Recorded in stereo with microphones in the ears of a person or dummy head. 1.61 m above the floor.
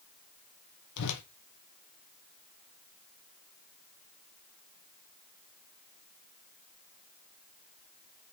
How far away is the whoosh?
About 1.2 m.